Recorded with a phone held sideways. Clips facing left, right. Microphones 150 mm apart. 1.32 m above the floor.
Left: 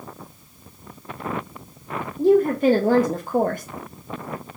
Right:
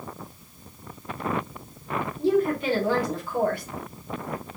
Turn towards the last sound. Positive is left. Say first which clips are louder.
# left 7 dB
turn(degrees=50)  # may be behind; listen again after turning